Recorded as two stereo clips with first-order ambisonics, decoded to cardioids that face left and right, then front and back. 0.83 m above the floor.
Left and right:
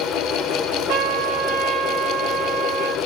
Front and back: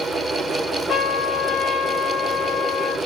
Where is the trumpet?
70° right, 1.6 m.